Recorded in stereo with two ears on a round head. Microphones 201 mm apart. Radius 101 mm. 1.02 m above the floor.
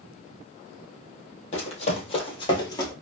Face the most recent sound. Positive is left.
turn(degrees=15)  # may be behind; listen again after turning